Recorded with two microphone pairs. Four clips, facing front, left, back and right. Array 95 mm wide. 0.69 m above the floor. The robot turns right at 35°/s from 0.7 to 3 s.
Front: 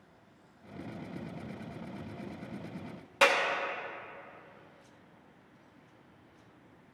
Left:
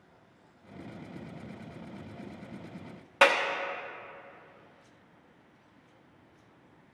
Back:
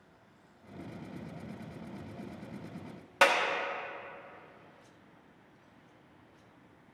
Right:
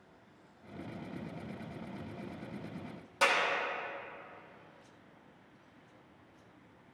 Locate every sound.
3.2 s a clap: 120° left, 1.0 m